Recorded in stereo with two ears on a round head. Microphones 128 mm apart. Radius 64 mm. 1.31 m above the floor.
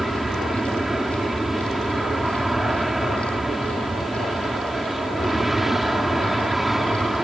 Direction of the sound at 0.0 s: Centre (ahead or behind).